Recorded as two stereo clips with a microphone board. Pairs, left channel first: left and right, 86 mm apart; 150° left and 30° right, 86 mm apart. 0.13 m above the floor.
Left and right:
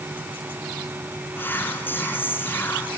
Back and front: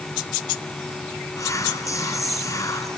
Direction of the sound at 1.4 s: 140° left.